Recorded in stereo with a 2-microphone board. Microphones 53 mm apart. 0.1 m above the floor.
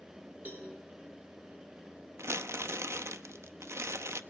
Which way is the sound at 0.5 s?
40° right (ahead or behind).